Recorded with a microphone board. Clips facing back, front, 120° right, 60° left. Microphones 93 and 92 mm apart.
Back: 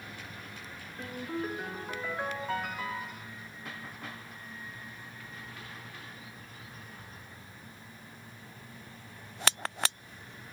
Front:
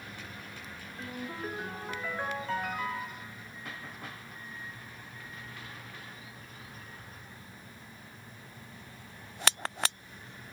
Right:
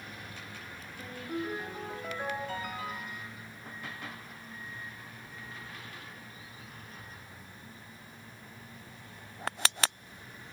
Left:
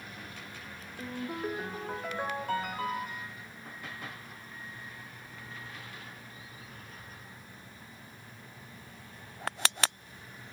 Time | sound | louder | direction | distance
1.0 | a ringtone | back 3 dB, left 1 dB | 95° left | 6 m